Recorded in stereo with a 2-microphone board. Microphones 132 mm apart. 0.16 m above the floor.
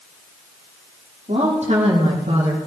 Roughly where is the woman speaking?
Right.